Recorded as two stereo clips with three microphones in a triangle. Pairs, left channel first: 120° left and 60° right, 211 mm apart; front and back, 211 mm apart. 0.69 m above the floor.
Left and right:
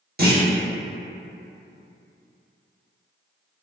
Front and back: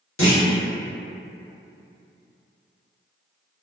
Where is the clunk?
15° right, 0.7 m.